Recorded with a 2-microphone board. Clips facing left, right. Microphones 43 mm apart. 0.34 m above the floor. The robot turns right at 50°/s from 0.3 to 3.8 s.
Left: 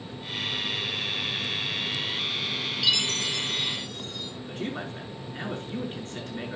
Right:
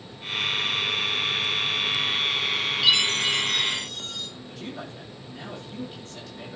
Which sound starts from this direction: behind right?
A chime, at 2.8 s.